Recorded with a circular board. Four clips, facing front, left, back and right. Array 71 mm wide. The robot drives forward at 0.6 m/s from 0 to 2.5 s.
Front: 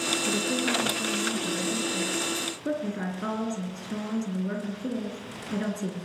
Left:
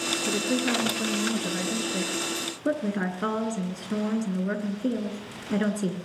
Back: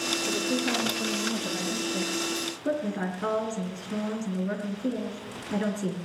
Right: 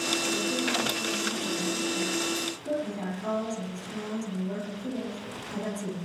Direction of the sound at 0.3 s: 70° left.